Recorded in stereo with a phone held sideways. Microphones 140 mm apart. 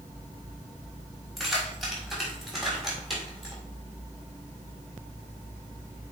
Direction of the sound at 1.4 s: Centre (ahead or behind).